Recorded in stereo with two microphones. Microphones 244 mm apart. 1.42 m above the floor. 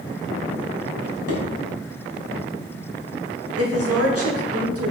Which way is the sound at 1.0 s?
70° right (ahead or behind).